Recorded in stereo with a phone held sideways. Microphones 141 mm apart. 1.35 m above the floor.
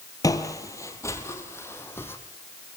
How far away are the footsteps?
About 2.0 m.